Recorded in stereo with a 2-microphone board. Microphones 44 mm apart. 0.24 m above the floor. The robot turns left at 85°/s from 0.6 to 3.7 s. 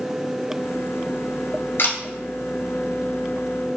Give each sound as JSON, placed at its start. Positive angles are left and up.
{"t": 1.8, "sound": "a camera shutter", "side_deg": 55, "distance_m": 1.3}